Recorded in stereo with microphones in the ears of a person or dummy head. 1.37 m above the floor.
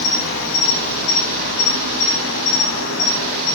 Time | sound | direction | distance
0.0 | an insect | 70° left (ahead or behind) | 4 m